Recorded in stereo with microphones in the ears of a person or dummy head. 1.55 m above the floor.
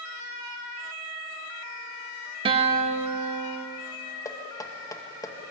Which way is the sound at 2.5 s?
30° right (ahead or behind).